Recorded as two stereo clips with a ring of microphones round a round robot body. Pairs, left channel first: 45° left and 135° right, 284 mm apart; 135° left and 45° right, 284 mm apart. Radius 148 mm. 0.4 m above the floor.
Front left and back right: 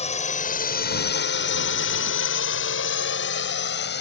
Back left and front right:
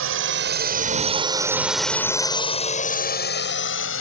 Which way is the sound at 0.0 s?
15° right.